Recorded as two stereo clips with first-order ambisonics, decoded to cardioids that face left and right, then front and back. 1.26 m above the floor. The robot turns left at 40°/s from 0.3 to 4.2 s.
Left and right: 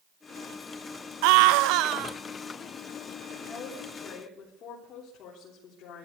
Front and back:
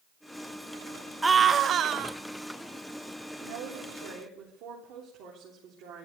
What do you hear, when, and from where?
1.2 s a scream: 95° right, 0.9 m; by 2.2 s 135° right, 0.9 m
3.4 s a woman speaking: 175° left, 3.5 m; by 6.0 s 140° left, 3.5 m